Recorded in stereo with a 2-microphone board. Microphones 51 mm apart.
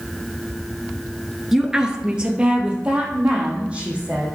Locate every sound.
1.5 s a woman speaking: 5° right (ahead or behind), 1.1 m; by 4.2 s 25° right (ahead or behind), 4.5 m